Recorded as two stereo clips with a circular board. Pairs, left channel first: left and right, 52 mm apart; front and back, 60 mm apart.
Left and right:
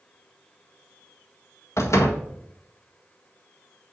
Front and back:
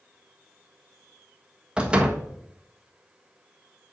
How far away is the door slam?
About 1.5 m.